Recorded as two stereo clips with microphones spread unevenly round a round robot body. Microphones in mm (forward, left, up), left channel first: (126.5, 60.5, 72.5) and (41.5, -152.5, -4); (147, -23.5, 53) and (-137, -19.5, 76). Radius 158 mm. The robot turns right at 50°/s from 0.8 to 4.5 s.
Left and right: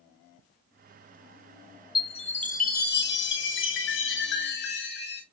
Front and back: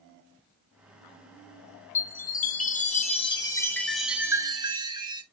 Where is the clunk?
No clunk in this recording.